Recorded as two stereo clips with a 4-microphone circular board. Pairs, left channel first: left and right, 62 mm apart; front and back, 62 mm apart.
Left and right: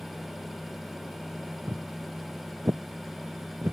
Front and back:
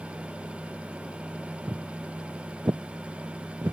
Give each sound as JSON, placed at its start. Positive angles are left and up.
{"t": 1.7, "sound": "footsteps", "azimuth_deg": -135}